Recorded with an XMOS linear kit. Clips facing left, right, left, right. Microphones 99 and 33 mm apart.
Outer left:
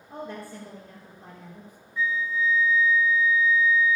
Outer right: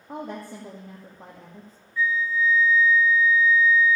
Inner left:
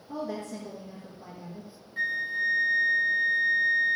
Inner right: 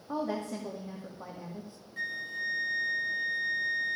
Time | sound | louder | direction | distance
0.1 | a woman speaking | outer right 3 dB, inner right 1 dB | 80° right | 2 m
2.0 | a flute | outer right 2 dB, inner left 7 dB | 20° left (ahead or behind) | 0.8 m